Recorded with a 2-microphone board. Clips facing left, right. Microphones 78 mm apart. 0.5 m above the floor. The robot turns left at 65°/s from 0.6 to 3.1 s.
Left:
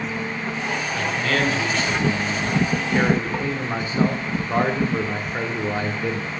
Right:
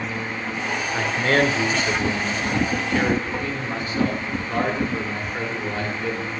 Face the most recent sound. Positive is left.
turn(degrees=140)